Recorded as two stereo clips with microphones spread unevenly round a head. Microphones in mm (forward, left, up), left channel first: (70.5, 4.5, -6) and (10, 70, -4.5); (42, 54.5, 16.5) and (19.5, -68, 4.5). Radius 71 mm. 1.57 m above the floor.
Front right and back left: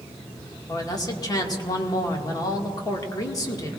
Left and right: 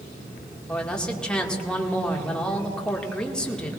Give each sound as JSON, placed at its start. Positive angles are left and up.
{"t": 0.7, "sound": "a man speaking", "azimuth_deg": -5, "distance_m": 2.0}